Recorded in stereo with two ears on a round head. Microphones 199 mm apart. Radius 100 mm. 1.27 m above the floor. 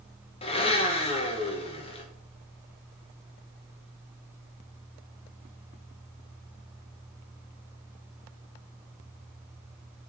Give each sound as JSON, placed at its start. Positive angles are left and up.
{"t": 0.4, "sound": "a blender", "side_deg": 25, "distance_m": 0.9}